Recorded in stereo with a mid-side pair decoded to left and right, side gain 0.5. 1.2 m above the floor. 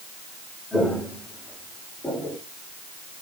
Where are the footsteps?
10° left, 6 m; by 2.4 s 25° left, 7.5 m.